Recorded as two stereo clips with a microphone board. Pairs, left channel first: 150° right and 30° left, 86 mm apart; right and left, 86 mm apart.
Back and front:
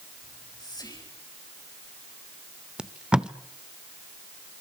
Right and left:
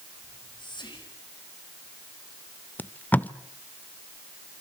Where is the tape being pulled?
40° right, 0.9 m.